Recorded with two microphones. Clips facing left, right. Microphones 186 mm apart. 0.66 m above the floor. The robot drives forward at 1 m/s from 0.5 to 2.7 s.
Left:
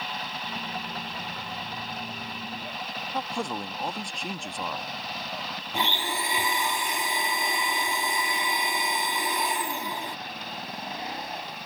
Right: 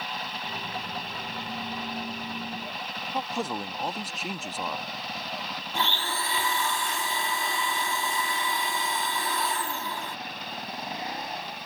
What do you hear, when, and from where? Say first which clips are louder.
3.1 s a man speaking: right 1 dB; 5° right (ahead or behind)
5.7 s a blender: left 1 dB; 15° left (ahead or behind)